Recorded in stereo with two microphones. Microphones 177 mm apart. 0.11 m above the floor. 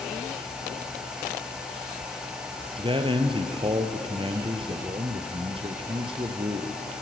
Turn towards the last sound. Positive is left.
turn(degrees=-30)  # may be behind; listen again after turning